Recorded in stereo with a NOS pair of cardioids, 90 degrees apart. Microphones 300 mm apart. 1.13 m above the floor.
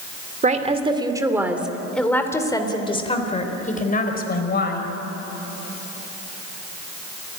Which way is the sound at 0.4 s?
25° right.